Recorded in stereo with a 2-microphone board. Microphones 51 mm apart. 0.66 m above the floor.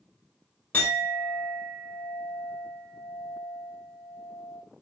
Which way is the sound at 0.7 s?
35° left (ahead or behind).